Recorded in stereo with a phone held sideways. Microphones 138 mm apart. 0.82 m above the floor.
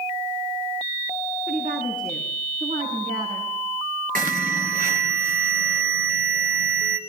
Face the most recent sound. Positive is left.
turn(degrees=-80)